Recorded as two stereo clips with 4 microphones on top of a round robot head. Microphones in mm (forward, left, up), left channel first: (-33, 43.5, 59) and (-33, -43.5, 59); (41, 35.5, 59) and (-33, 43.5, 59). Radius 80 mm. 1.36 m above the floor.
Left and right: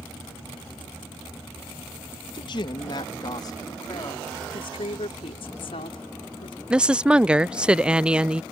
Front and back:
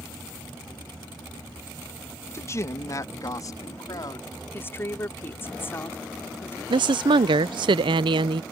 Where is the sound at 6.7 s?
170° right.